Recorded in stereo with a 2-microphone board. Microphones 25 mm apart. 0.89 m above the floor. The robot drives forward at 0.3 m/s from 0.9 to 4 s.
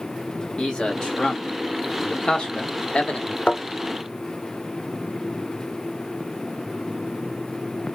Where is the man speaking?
35° left (ahead or behind), 1.3 m; by 3.4 s 45° left (ahead or behind), 1.0 m.